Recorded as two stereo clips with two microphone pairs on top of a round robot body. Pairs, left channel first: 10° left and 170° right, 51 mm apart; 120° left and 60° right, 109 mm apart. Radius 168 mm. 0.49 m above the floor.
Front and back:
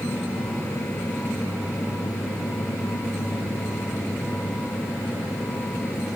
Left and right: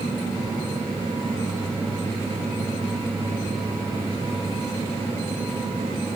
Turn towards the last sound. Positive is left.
No sound to turn to.